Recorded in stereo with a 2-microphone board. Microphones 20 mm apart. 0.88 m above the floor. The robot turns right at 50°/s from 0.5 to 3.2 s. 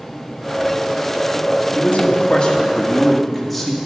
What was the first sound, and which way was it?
A man speaking, 110° left.